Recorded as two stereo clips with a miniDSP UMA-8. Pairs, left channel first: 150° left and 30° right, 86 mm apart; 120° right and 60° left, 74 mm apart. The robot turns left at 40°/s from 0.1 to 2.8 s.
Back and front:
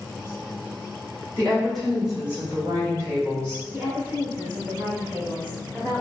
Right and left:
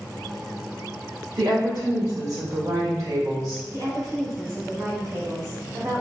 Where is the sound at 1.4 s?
80° left, 1.8 m; by 3.6 s 20° left, 1.8 m.